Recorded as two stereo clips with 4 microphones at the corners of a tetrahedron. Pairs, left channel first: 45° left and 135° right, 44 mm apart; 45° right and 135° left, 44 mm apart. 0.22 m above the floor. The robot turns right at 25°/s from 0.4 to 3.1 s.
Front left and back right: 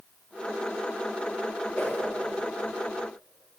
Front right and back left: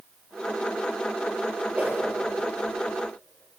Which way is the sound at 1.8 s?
80° left.